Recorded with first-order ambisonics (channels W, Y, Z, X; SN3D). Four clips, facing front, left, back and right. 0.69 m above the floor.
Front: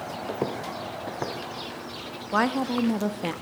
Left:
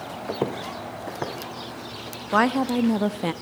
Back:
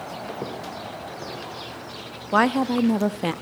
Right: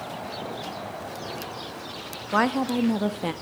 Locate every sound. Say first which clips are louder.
0.3 s footsteps: left 5 dB, front 5 dB; 70° left, 1.8 m; by 2.2 s 55° left, 4 m
2.3 s a woman speaking: left 2 dB, back 4 dB; 155° left, 0.6 m